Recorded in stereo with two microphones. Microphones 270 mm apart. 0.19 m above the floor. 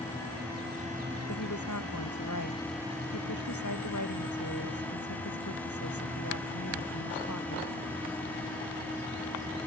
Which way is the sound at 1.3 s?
85° left.